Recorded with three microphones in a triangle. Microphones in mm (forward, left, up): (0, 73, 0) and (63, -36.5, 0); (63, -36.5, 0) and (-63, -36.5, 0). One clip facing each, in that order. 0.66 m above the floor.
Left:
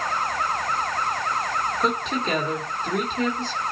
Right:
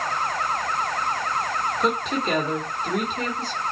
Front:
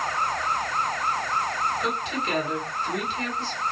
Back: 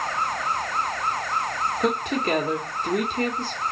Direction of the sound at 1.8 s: 145° right.